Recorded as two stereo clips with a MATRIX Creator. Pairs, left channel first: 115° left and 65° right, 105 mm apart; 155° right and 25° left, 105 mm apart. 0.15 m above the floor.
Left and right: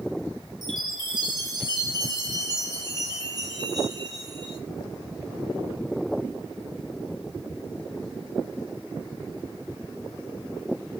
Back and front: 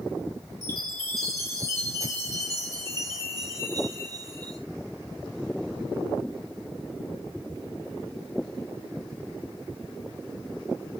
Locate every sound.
0.6 s a chime: 25° right, 3.5 m